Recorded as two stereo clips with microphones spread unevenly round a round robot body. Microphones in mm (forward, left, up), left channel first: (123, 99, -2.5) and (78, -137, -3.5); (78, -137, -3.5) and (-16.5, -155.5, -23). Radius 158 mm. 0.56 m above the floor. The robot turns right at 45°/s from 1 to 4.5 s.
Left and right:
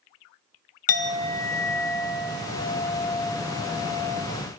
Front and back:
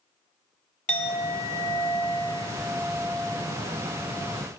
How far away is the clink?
About 1.0 m.